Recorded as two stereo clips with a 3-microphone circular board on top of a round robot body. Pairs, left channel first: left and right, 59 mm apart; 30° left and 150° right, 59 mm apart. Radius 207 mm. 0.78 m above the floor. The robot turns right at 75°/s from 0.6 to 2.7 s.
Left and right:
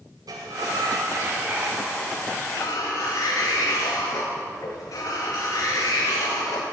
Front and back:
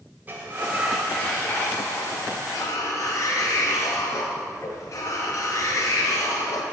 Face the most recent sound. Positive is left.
turn(degrees=70)